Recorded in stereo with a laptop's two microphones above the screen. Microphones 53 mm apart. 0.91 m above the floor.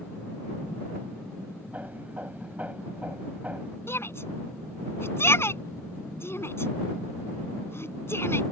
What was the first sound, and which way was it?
Hammering, 30° right (ahead or behind).